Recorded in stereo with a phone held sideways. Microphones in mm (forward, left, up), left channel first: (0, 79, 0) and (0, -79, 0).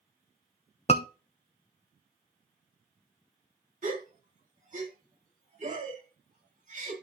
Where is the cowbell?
No cowbell in this recording.